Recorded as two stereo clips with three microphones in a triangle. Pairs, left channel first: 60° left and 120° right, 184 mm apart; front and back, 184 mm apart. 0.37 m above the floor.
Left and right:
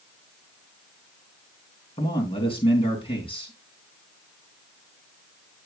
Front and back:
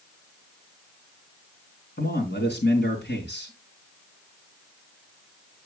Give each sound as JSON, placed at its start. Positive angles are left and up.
{"t": 2.0, "sound": "a man speaking", "azimuth_deg": 0, "distance_m": 4.0}